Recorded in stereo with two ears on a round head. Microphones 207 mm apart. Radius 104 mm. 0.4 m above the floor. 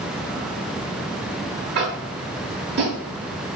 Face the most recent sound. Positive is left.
turn(degrees=-45)  # may be behind; listen again after turning